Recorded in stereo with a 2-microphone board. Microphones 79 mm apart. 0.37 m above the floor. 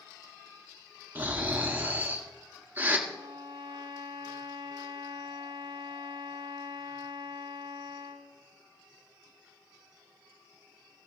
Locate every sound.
1.1 s snoring: 25° right (ahead or behind), 2.0 m
3.1 s a violin: 70° right (ahead or behind), 1.3 m